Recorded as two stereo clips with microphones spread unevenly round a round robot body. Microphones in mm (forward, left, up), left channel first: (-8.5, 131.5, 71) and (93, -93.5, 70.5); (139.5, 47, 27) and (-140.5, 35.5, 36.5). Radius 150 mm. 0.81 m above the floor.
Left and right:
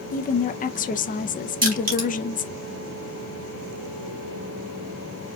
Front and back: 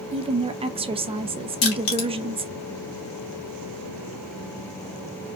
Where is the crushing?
10° right, 2.5 m.